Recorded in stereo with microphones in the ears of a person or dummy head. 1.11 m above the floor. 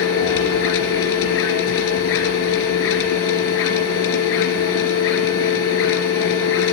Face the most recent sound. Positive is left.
turn(degrees=70)  # may be behind; listen again after turning